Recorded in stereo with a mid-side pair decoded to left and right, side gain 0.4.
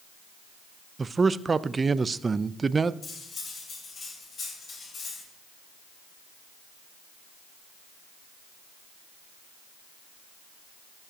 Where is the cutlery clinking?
45° left, 3.5 m.